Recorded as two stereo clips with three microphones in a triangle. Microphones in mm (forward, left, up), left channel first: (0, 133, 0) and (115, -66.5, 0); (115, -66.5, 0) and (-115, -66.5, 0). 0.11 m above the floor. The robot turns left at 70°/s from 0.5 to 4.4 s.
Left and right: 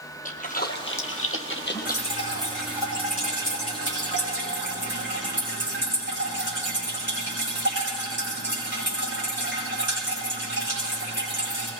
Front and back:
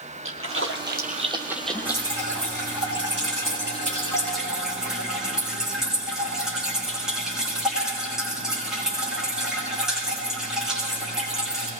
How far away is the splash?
About 1.7 m.